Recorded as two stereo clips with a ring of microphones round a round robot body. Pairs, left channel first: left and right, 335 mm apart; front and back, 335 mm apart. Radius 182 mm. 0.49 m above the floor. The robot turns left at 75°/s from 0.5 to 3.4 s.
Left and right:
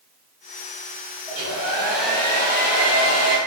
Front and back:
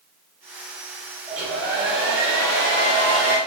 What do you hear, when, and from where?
1.3 s a hair dryer: 125° right, 1.5 m; by 3.4 s 80° left, 1.5 m